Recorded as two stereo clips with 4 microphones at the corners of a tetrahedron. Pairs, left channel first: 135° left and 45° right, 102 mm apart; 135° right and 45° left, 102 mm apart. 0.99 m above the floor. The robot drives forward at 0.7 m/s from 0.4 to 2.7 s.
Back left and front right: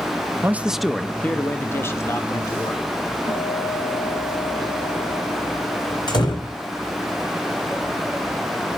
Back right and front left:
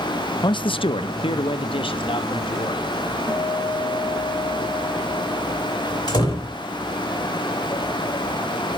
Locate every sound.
0.4 s a man speaking: 105° right, 0.5 m; by 2.9 s 165° right, 1.8 m
3.3 s a guitar: 160° left, 6.5 m
6.1 s a door slam: straight behind, 3.5 m